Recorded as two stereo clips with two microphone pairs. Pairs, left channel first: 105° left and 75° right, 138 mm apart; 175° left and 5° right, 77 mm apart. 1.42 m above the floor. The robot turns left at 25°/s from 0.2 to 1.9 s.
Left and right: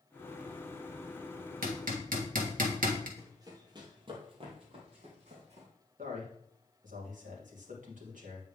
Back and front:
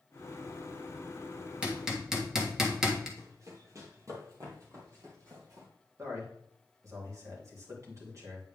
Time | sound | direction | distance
1.6 | hammering | 80° right | 1.4 m
3.2 | running footsteps | 20° right | 1.8 m
6.0 | a man speaking | 55° right | 2.5 m